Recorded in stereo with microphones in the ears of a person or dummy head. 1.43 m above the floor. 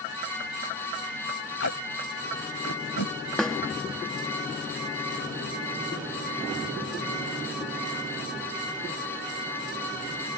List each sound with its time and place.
1.6 s tape being pulled: 60° left (ahead or behind)
3.4 s a snare drum: 5° left (ahead or behind)